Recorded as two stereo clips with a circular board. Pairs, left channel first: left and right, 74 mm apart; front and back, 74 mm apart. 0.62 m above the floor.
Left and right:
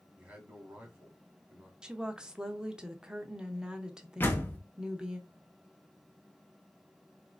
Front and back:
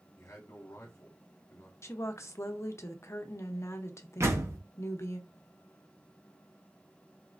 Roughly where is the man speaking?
Ahead right.